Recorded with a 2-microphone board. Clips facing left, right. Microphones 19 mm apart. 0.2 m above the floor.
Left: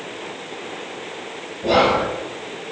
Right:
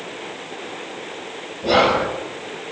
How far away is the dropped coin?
I don't hear a dropped coin.